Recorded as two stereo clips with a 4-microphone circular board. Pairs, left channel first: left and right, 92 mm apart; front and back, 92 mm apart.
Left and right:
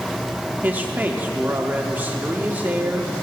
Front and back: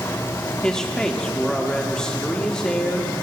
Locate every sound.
0.6 s a man speaking: 65° right, 0.8 m